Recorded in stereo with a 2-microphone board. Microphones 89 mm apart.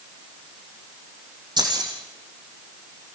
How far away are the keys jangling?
About 5 m.